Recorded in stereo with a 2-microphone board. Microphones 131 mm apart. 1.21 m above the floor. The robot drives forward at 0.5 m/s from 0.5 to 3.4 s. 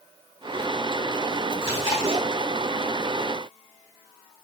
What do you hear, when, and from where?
1.6 s chewing: 40° left (ahead or behind), 1.2 m; by 2.2 s 45° left (ahead or behind), 1.1 m